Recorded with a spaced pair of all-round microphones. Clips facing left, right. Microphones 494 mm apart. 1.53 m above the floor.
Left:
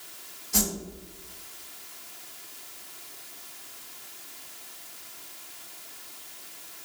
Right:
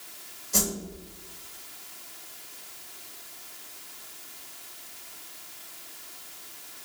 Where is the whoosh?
5° left (ahead or behind), 3 m.